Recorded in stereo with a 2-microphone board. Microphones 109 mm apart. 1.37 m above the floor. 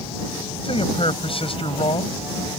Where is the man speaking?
60° left (ahead or behind).